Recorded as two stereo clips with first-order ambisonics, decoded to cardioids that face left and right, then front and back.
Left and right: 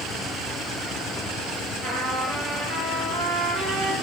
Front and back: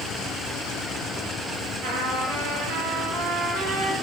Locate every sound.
1.8 s a trumpet: 150° right, 9 m